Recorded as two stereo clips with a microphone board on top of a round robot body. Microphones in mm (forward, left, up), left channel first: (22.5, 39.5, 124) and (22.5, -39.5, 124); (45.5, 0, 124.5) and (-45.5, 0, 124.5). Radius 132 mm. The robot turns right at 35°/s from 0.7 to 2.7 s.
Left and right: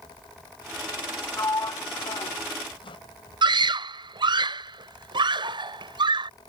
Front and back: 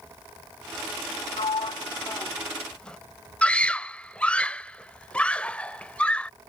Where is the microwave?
No microwave in this recording.